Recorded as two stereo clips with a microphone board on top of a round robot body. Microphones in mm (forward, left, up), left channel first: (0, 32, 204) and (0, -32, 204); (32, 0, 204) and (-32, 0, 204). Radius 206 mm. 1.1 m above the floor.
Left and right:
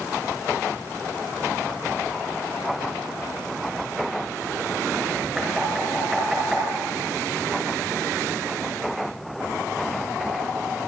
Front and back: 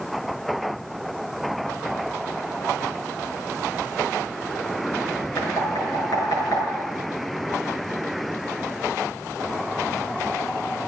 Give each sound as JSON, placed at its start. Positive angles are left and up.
{"t": 5.4, "sound": "knocking", "azimuth_deg": -10, "distance_m": 6.5}